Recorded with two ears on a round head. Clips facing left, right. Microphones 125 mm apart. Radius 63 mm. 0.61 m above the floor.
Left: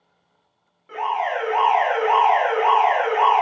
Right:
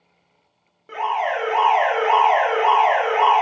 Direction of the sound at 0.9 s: 45° right (ahead or behind).